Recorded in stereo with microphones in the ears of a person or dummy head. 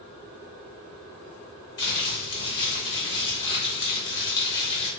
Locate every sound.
1.8 s crumpling: 30° left (ahead or behind), 1.2 m